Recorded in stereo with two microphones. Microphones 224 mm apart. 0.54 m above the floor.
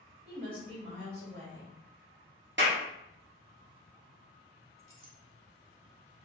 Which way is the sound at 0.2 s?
45° right (ahead or behind).